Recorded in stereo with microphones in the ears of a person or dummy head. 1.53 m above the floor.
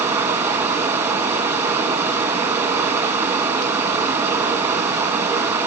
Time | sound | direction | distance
0.0 | running water | 10° right (ahead or behind) | 1.6 m